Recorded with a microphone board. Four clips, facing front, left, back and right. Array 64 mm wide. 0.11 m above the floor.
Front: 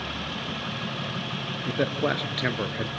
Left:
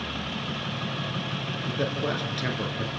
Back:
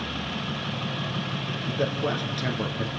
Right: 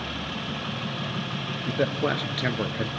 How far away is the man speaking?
About 1.7 m.